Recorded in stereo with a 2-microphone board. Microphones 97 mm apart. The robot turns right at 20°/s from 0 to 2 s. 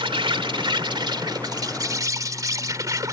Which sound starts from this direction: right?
An insect, at 0.0 s.